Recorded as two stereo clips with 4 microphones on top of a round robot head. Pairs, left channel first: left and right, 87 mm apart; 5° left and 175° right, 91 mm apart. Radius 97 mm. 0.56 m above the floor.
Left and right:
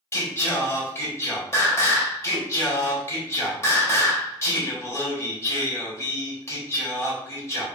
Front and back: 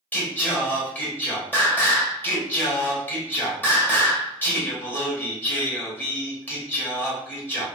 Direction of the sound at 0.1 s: 60° left.